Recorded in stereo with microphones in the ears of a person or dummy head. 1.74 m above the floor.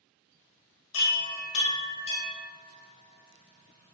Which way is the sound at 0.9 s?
40° left (ahead or behind).